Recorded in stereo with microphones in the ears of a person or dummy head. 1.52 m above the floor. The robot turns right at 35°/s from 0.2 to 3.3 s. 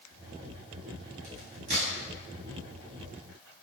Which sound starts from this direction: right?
A crack, at 1.2 s.